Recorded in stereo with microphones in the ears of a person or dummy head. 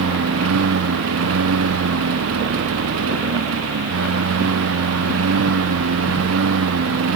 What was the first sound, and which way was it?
A lawn mower, 85° right.